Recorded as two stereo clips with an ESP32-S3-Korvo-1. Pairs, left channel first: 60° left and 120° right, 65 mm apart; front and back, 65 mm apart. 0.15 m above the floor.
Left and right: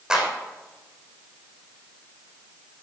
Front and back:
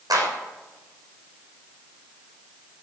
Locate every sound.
0.1 s a clap: 160° left, 6 m